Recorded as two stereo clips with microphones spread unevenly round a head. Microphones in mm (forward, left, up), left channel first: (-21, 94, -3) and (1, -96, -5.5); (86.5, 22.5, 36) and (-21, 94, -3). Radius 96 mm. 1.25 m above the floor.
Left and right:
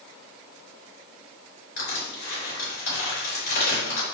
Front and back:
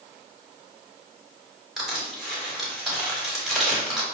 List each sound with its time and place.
1.8 s crushing: 60° left, 4.5 m